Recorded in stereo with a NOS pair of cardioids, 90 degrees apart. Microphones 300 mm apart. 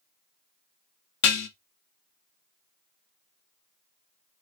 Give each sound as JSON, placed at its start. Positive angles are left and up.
{"t": 1.2, "sound": "dishes clattering", "azimuth_deg": 65, "distance_m": 0.7}